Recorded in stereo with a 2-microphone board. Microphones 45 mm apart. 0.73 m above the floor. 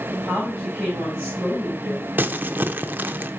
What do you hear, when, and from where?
0.1 s a woman speaking: 15° right (ahead or behind), 4.5 m
2.2 s crumpling: 45° right (ahead or behind), 0.7 m